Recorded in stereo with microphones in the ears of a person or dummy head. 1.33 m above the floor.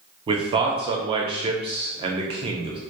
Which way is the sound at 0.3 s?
30° right (ahead or behind).